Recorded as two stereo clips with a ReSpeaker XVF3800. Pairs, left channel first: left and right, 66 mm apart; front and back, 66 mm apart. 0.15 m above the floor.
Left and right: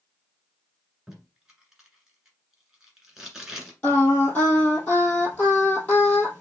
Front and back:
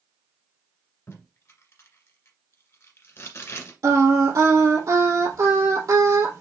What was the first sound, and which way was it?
Tape being pulled, 10° right.